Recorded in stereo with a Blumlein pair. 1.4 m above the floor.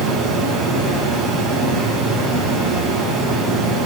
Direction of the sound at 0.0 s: 35° right.